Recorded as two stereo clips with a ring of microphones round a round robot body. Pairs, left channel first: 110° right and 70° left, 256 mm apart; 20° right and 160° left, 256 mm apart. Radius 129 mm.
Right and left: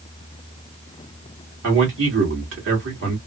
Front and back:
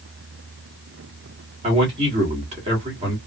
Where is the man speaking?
95° left, 2.0 m.